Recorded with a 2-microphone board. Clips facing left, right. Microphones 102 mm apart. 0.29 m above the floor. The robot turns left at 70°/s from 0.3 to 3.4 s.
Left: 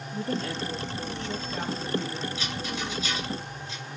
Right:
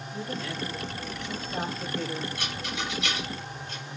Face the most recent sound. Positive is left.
turn(degrees=-50)  # may be behind; listen again after turning